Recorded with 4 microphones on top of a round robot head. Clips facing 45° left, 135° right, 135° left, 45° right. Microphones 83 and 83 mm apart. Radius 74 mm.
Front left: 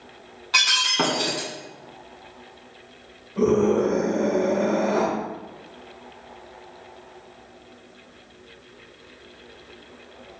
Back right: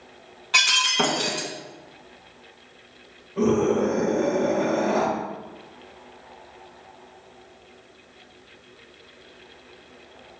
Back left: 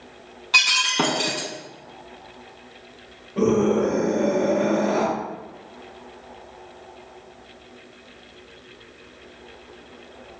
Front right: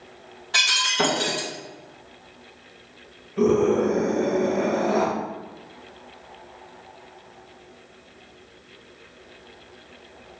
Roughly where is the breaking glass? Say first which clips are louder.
Even, back left 2 dB; behind left.